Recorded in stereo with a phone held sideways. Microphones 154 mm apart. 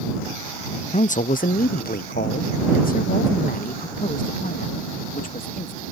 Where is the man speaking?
45° left (ahead or behind); by 5.8 s 60° left (ahead or behind).